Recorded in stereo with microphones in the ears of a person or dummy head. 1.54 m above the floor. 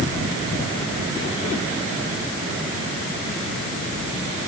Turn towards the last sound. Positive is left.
No sound to turn to.